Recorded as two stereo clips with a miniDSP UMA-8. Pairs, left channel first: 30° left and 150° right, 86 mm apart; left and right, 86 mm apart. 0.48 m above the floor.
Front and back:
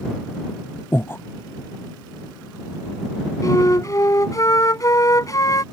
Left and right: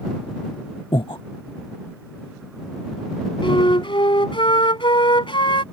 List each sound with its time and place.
0.9 s breathing: 90° left
3.4 s a flute: 80° left